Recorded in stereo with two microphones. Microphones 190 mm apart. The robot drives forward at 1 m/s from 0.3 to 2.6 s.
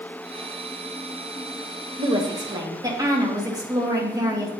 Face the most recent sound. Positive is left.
turn(degrees=-20)  # may be behind; listen again after turning